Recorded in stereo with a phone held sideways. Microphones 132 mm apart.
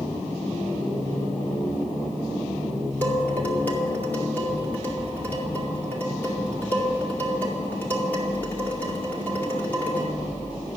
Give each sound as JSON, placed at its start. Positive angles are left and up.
{"t": 3.0, "sound": "dishes clattering", "side_deg": 15, "distance_m": 2.5}